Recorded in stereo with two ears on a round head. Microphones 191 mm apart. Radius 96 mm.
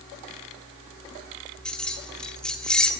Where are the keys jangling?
5° left (ahead or behind), 1.8 m.